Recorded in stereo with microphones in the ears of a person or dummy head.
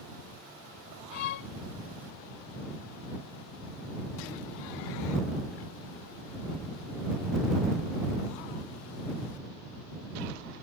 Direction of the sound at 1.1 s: 50° left (ahead or behind).